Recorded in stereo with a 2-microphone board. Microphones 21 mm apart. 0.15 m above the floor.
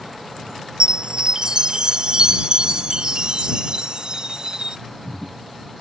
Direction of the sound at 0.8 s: 40° right (ahead or behind).